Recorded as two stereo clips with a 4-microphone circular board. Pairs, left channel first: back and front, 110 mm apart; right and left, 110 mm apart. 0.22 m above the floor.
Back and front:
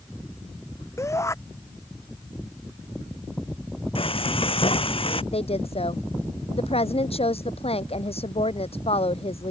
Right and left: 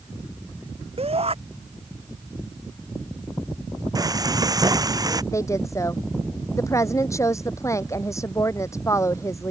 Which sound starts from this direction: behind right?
A woman speaking, at 5.3 s.